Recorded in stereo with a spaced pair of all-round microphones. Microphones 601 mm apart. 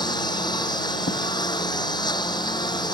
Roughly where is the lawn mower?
Centre.